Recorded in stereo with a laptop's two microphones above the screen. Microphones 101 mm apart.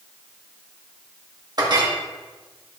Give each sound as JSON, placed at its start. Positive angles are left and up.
{"t": 1.6, "sound": "a clink", "side_deg": -45, "distance_m": 1.2}